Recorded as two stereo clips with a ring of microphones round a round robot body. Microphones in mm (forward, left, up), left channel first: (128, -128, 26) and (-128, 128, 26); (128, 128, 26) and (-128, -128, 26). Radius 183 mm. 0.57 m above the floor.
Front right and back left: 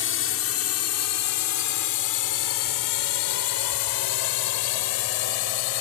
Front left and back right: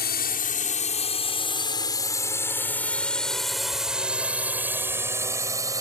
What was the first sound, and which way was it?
A drone, 5° right.